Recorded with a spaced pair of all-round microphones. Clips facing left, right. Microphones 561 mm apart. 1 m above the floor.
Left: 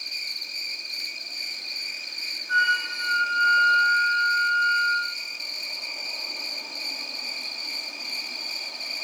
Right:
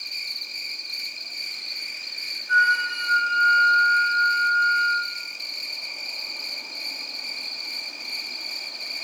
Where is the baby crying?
I don't hear a baby crying.